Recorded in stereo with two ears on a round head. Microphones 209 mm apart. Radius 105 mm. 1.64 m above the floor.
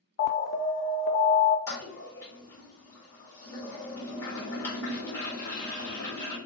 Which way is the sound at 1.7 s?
10° left (ahead or behind).